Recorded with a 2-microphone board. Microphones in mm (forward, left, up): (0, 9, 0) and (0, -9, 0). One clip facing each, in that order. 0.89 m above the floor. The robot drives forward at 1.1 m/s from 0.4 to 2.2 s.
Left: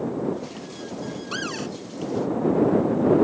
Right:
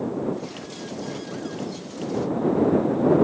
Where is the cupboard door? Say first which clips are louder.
Left 2 dB; 65° left (ahead or behind); by 1.7 s 70° left (ahead or behind).